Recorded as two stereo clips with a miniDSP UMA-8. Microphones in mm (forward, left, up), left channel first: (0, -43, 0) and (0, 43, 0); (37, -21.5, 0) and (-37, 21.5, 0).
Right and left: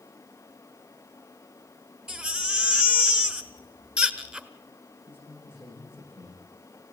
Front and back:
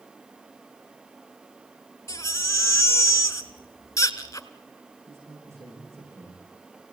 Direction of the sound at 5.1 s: 150° right.